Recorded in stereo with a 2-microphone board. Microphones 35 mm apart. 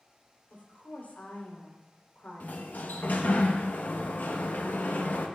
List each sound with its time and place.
0.5 s a woman speaking: 55° left (ahead or behind), 3.5 m
2.4 s a sliding door: 60° left (ahead or behind), 1.0 m